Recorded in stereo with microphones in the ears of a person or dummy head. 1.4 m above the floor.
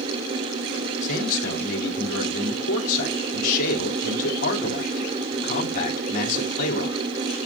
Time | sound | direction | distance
1.0 | a man speaking | 45° left (ahead or behind) | 2 m